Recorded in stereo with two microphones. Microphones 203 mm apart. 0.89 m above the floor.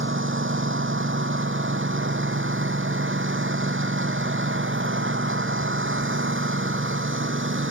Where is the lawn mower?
75° right (ahead or behind).